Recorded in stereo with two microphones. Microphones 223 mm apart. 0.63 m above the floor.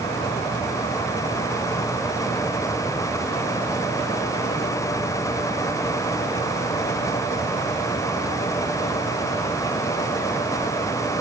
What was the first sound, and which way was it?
Only background noise.